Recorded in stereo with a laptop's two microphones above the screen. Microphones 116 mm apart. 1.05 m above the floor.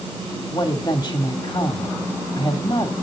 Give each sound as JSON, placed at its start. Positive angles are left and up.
{"t": 0.5, "sound": "a woman speaking", "side_deg": 35, "distance_m": 2.5}